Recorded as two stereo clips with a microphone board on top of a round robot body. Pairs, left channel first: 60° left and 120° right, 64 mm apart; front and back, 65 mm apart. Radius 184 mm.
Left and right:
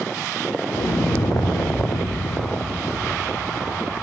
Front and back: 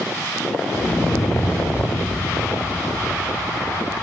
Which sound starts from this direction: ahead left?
An explosion, at 0.7 s.